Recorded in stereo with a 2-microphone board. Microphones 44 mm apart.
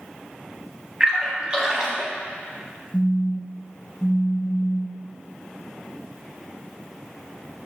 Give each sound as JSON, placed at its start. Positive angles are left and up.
{"t": 1.0, "sound": "a splash", "side_deg": -25, "distance_m": 0.7}
{"t": 2.9, "sound": "a phone buzzing", "side_deg": -10, "distance_m": 1.3}